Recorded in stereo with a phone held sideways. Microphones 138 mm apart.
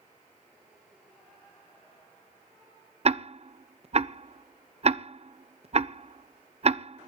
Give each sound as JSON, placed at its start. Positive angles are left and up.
{"t": 3.0, "sound": "ticking", "side_deg": -50, "distance_m": 0.6}